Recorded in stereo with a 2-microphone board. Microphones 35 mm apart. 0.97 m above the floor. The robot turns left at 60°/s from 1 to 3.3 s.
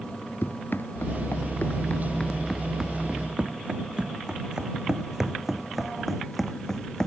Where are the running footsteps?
80° left; by 7.1 s 15° left (ahead or behind).